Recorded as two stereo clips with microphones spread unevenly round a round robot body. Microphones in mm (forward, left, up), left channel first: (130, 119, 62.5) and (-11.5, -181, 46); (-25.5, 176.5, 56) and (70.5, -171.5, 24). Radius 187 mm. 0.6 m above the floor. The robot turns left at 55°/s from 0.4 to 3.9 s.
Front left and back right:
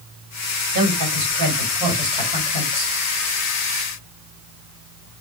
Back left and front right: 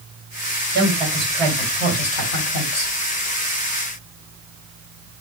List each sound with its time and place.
0.7 s a woman speaking: 125° right, 2.5 m; by 2.9 s 115° left, 2.5 m